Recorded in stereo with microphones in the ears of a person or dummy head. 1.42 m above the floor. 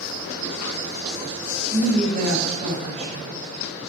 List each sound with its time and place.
1.7 s a woman speaking: 35° right (ahead or behind), 0.6 m